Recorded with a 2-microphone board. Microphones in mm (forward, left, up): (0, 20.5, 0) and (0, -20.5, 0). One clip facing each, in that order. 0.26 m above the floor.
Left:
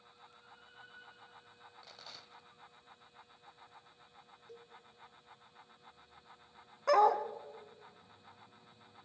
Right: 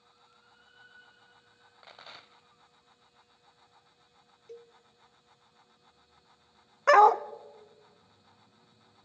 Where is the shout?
I don't hear a shout.